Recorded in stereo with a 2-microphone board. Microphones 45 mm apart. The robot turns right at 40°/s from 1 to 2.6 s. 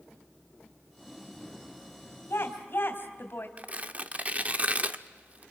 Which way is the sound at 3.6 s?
35° right (ahead or behind).